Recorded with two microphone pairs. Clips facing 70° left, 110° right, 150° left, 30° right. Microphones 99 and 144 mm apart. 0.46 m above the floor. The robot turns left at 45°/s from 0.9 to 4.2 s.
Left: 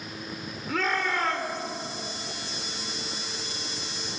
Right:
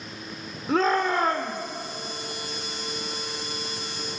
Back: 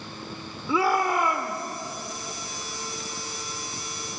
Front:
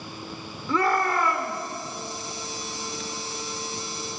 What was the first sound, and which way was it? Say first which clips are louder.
A shout: right 6 dB, even; 135° right.